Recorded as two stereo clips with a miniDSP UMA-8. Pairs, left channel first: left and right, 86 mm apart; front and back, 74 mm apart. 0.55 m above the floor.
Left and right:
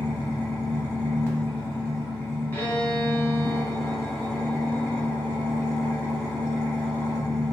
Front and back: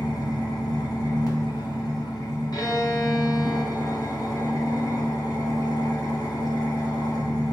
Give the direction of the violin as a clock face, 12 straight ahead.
11 o'clock.